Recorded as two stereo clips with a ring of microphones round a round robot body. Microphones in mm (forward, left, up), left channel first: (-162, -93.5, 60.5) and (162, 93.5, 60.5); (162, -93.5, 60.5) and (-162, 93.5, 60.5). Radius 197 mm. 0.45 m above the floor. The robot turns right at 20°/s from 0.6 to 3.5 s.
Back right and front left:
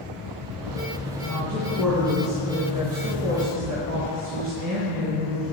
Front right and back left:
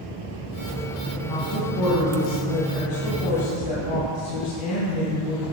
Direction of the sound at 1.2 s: 70° right.